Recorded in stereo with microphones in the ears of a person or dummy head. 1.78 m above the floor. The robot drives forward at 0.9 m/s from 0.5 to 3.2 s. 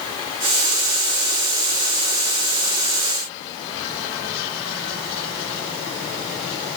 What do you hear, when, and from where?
Only background noise.